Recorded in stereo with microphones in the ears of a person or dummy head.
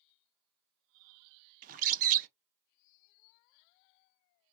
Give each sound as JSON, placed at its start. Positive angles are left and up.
{"t": 1.6, "sound": "a bird", "side_deg": -40, "distance_m": 0.5}